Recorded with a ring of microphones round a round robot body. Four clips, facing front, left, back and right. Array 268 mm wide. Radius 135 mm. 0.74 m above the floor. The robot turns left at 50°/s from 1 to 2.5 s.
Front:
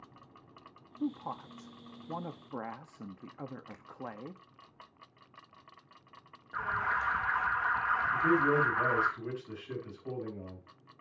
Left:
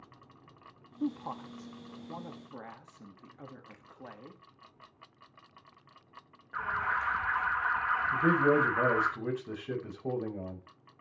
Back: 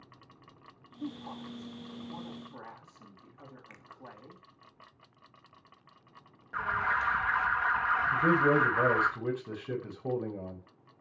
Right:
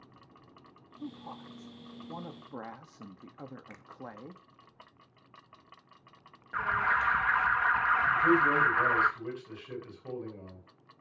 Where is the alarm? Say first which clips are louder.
Right 3 dB, back 2 dB; 110° right, 1.6 m.